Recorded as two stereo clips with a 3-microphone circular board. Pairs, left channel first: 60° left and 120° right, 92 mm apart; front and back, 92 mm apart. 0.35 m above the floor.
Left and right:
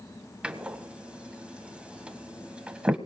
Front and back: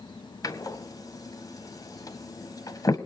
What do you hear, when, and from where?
0.4 s a door slam: 45° right, 1.4 m